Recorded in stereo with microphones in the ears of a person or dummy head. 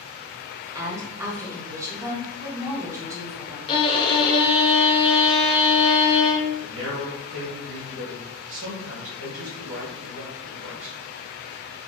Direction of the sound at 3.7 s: 30° left (ahead or behind).